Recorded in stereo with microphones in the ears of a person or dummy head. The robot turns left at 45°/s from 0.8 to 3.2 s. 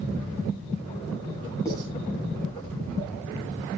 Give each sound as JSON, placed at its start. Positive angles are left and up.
{"t": 1.6, "sound": "writing", "side_deg": 15, "distance_m": 8.5}